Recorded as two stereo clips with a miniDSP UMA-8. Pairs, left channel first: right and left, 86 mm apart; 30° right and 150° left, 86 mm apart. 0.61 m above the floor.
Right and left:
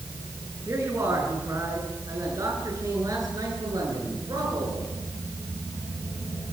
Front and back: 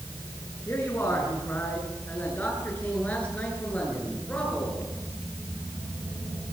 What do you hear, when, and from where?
0.7 s a man speaking: 35° left, 9 m; by 4.9 s 50° left, 11.5 m